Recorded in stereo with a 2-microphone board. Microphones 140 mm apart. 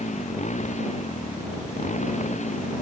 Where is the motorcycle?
55° left (ahead or behind).